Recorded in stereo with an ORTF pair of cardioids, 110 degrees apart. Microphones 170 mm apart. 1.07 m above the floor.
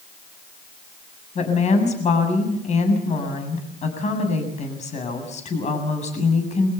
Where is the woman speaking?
45° left, 7.5 m.